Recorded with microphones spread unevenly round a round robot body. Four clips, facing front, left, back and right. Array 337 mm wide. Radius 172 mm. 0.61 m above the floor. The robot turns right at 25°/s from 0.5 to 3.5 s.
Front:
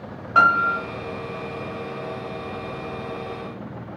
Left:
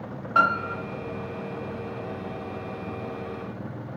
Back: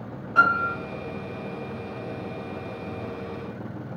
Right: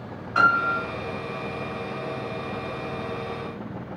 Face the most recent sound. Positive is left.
turn(degrees=85)